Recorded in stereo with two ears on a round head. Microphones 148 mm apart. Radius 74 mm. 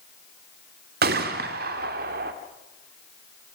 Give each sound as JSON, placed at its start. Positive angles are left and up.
{"t": 1.0, "sound": "a gunshot", "side_deg": -65, "distance_m": 2.0}